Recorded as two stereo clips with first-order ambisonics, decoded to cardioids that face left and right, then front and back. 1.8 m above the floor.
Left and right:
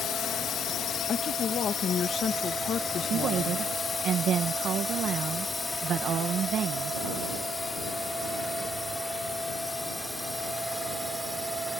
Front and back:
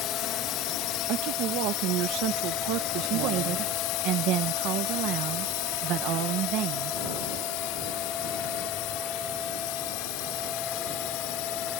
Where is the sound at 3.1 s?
145° right.